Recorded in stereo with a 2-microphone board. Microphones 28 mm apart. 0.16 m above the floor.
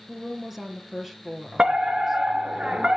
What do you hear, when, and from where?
0.1 s a woman speaking: 10° right (ahead or behind), 3.5 m
1.6 s a fire alarm: 35° right (ahead or behind), 3.5 m